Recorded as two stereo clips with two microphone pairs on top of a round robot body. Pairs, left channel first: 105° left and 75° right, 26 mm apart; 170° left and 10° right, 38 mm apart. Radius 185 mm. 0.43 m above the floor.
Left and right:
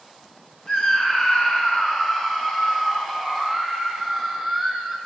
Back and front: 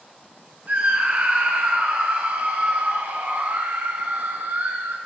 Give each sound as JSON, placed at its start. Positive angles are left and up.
{"t": 0.7, "sound": "a scream", "azimuth_deg": 35, "distance_m": 8.5}